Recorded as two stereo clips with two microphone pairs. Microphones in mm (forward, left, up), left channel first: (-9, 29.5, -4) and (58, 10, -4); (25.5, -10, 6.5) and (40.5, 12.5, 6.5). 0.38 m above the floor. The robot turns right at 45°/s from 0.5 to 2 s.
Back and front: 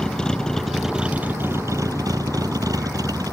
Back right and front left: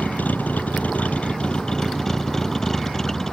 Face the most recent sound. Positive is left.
turn(degrees=-50)